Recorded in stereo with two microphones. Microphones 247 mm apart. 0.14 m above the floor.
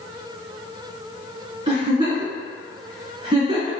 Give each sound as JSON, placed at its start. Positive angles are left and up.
{"t": 1.7, "sound": "a giggle", "side_deg": -15, "distance_m": 1.9}